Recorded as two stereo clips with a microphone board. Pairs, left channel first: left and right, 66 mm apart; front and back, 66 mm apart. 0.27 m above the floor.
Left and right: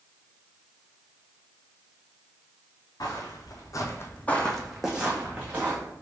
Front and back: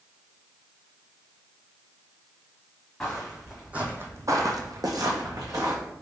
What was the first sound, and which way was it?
Footsteps, 85° left.